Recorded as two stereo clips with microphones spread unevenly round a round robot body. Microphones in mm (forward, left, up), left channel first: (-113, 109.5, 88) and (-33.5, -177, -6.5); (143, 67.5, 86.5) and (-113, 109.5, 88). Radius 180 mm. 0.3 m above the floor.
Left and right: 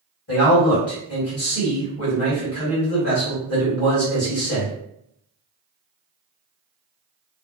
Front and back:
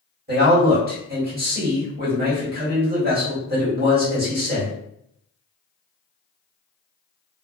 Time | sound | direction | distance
0.3 | a man speaking | 145° left | 1.7 m